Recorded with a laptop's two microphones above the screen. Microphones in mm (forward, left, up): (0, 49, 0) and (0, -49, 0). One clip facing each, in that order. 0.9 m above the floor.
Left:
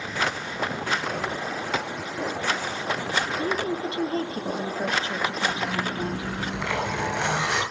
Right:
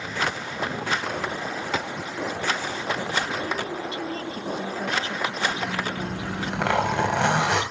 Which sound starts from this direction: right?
A zipper, at 6.0 s.